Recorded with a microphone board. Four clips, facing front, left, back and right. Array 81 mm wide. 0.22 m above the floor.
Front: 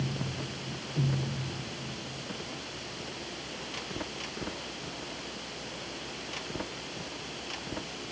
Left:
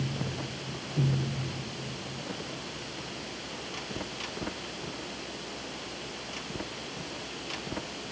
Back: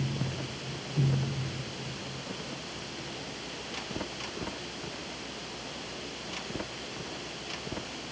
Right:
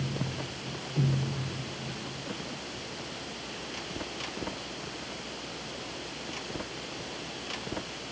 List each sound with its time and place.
Only background noise.